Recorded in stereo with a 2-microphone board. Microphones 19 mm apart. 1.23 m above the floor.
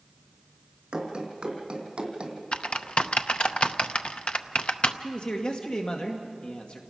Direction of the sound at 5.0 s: 60° left (ahead or behind).